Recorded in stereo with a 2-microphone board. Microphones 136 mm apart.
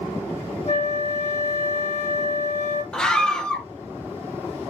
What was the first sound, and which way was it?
A flute, 65° left (ahead or behind).